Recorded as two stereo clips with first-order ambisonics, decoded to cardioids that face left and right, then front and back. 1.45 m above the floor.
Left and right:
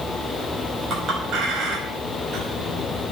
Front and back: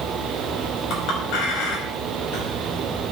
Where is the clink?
35° right, 5.5 m.